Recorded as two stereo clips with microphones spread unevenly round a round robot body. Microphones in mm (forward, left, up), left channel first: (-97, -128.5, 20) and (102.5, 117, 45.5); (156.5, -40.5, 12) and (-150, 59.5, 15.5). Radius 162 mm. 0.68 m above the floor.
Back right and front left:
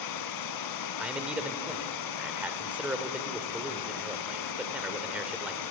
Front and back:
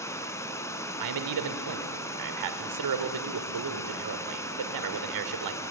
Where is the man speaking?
140° left, 2.5 m.